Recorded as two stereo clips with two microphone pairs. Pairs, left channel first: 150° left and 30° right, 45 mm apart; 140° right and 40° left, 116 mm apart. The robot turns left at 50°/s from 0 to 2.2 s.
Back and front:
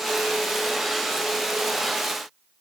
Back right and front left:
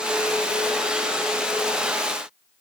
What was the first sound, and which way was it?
Only background noise.